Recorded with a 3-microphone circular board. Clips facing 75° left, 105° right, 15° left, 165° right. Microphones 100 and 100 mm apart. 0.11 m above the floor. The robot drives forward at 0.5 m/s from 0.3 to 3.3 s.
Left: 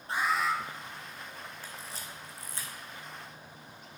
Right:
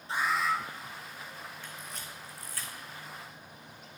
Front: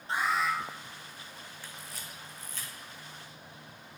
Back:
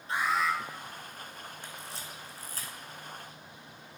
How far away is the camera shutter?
About 1.2 m.